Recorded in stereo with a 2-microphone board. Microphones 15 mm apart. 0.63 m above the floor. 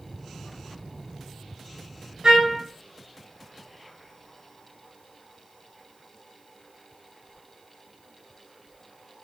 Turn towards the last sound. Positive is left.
turn(degrees=-65)  # may be behind; listen again after turning